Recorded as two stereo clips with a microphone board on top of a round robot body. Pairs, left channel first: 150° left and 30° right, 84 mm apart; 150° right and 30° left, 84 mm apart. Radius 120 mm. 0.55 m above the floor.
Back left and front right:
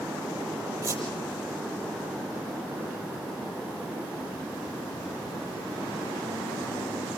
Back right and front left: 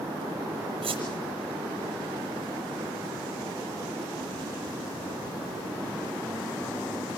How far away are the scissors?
I don't hear scissors.